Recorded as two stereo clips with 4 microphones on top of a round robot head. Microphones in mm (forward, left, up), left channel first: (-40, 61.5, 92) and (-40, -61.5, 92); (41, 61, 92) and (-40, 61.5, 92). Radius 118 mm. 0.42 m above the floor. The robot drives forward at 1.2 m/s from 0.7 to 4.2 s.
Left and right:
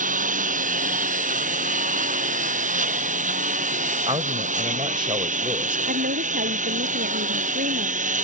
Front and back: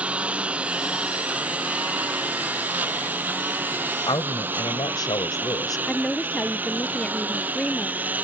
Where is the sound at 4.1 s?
35° right; by 5.8 s 40° right.